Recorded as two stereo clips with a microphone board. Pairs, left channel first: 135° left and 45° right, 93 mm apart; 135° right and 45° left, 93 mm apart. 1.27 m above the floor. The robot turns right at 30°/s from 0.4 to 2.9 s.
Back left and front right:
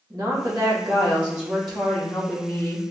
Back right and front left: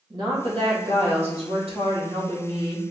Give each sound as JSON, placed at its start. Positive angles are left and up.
{"t": 0.1, "sound": "a woman speaking", "azimuth_deg": 5, "distance_m": 1.6}